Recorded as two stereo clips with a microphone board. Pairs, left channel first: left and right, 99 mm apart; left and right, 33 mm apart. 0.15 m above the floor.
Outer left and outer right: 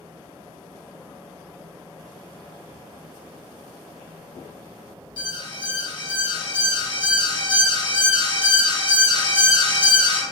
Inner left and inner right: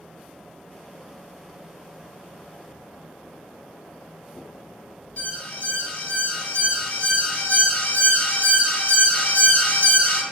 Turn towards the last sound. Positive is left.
turn(degrees=55)  # may be behind; listen again after turning